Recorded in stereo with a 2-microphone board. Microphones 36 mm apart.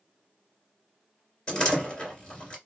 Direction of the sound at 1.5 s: 25° left (ahead or behind).